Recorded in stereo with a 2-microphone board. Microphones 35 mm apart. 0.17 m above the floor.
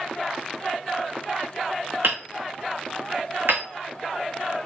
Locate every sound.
2.0 s hammering: 80° right, 4.5 m